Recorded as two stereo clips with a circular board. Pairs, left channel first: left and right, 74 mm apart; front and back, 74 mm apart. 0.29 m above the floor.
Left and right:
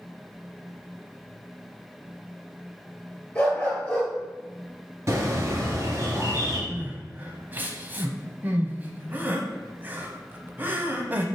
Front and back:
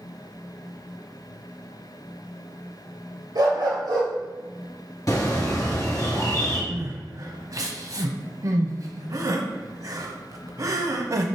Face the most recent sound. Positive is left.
turn(degrees=-150)